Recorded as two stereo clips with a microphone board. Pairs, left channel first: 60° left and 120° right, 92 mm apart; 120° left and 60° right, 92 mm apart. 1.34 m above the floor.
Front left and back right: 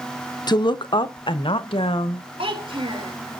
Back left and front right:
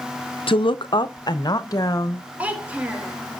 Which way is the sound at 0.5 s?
100° left.